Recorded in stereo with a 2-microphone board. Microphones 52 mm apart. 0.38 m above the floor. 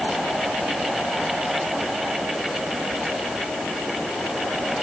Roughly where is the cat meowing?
No cat meowing in this recording.